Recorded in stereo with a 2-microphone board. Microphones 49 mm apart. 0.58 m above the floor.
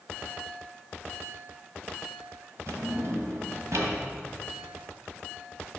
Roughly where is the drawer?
Right.